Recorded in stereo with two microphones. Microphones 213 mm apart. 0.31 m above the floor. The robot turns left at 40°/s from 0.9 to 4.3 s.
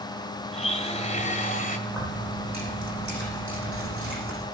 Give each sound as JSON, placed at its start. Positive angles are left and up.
{"t": 0.5, "sound": "a blender", "azimuth_deg": 125, "distance_m": 1.6}
{"t": 1.9, "sound": "keys jangling", "azimuth_deg": 0, "distance_m": 9.5}